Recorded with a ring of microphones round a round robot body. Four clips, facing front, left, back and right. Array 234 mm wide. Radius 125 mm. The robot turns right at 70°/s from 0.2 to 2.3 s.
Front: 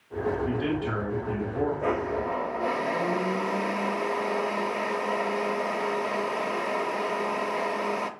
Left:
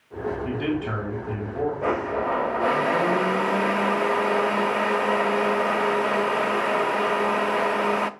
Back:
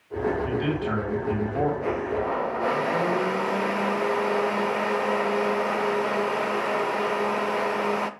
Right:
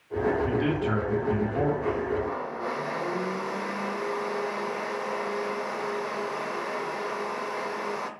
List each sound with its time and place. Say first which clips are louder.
0.5 s a man speaking: even, back 2 dB; 100° left, 3 m; by 1.7 s 170° right, 3 m
1.8 s a blender: left 3 dB, back 1 dB; 80° left, 0.6 m; by 8.1 s 115° left, 0.6 m